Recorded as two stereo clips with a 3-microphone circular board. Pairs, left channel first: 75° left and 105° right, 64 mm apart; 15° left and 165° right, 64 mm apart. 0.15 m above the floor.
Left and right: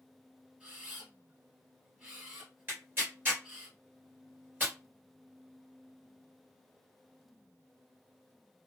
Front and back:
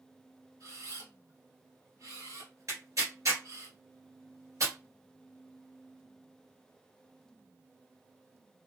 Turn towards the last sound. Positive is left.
turn(degrees=-155)